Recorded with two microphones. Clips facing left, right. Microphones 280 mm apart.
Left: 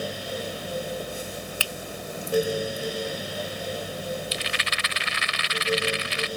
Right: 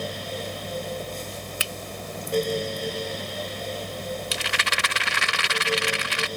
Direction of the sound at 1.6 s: 20° right (ahead or behind).